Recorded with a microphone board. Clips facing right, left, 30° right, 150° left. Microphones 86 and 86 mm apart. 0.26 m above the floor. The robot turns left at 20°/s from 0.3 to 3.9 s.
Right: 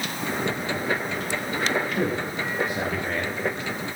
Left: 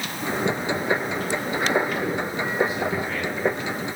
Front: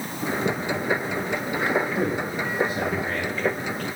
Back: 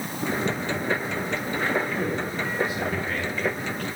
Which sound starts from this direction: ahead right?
A man speaking, at 2.0 s.